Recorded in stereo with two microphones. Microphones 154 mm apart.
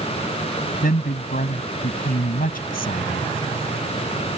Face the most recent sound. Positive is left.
turn(degrees=75)  # may be behind; listen again after turning